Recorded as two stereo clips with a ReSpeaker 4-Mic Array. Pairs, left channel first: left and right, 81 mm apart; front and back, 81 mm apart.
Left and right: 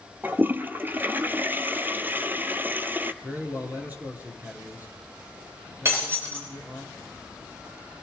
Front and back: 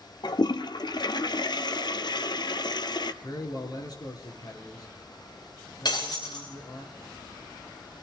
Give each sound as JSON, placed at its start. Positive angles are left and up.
{"t": 0.2, "sound": "a toilet flushing", "azimuth_deg": -25, "distance_m": 0.6}
{"t": 3.2, "sound": "a man speaking", "azimuth_deg": -25, "distance_m": 2.5}
{"t": 5.8, "sound": "breaking glass", "azimuth_deg": -30, "distance_m": 6.5}